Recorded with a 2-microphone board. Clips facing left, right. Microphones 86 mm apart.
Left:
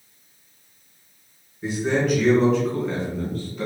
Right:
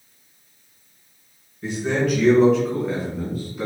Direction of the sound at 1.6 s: 5° left (ahead or behind).